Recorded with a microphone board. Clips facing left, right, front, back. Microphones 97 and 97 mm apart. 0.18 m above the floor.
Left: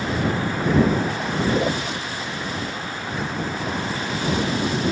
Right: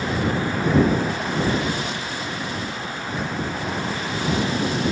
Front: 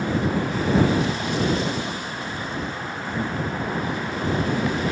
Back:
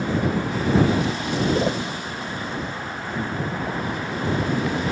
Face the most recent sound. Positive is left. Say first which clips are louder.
# left 3 dB, back 3 dB
turn(degrees=135)